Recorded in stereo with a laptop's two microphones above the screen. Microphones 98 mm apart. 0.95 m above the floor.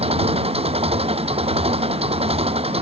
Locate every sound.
0.0 s an engine running: 85° right